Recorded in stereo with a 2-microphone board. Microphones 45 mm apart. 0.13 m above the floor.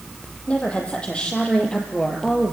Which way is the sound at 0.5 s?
30° left (ahead or behind).